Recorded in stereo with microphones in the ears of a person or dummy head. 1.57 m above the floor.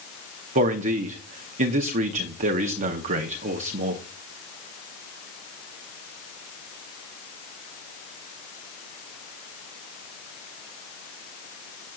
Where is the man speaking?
45° right (ahead or behind), 0.7 m.